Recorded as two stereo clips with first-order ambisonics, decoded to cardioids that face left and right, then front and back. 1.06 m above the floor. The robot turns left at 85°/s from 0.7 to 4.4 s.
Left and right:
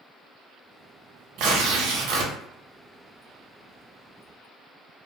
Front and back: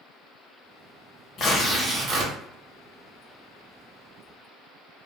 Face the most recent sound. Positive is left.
turn(degrees=50)